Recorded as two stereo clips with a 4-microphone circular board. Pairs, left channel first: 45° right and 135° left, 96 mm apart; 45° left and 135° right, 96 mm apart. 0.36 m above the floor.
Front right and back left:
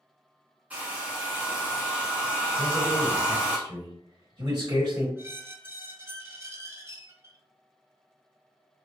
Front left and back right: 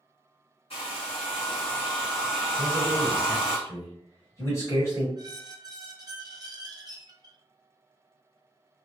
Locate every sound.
0.7 s a hair dryer: 60° left, 1.3 m
2.6 s a man speaking: 95° left, 1.6 m
5.2 s a squeak: 170° right, 0.6 m